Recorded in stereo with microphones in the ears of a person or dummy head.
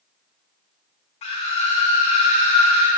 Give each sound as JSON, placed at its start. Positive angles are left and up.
{"t": 1.2, "sound": "a scream", "side_deg": 30, "distance_m": 1.1}